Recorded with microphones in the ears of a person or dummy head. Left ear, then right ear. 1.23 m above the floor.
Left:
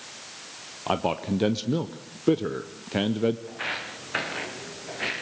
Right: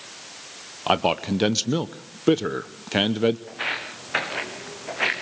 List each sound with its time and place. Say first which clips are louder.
0.9 s a man speaking: right 5 dB; 35° right (ahead or behind), 0.7 m
3.5 s footsteps: right 3 dB; 15° right (ahead or behind), 4.5 m; by 5.2 s 40° right (ahead or behind), 4 m